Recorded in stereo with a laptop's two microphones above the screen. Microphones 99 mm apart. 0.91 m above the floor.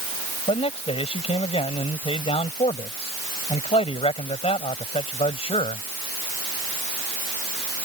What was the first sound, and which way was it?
A man speaking, 85° left.